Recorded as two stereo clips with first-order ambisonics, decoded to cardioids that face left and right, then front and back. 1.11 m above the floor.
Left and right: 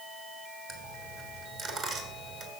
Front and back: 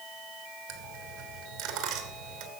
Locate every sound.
0.7 s a dropped coin: 145° right, 3 m